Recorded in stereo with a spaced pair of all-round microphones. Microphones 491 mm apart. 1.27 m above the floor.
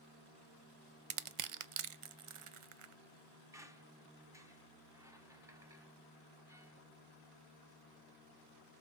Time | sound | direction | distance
1.1 | crushing | 85° right | 0.5 m
3.5 | a squeak | 5° right (ahead or behind) | 0.7 m